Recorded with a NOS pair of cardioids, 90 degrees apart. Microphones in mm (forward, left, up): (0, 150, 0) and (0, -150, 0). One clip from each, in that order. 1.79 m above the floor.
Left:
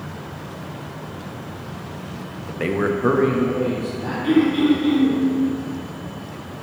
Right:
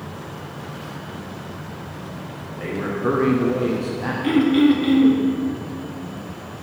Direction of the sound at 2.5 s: 65° left.